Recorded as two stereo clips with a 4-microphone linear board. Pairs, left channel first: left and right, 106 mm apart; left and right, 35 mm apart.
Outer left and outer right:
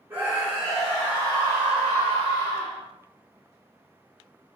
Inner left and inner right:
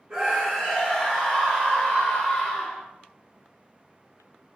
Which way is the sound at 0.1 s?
20° right (ahead or behind).